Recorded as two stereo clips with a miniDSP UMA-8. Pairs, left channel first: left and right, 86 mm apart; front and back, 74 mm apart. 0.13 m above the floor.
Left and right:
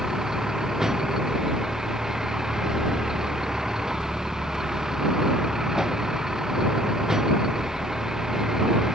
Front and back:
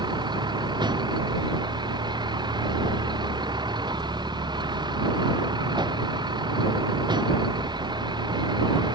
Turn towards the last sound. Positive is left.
turn(degrees=-175)